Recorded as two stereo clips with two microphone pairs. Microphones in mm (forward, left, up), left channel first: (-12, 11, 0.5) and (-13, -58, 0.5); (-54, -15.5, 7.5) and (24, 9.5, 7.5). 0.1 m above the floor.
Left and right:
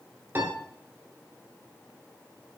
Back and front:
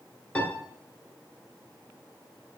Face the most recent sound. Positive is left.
turn(degrees=-105)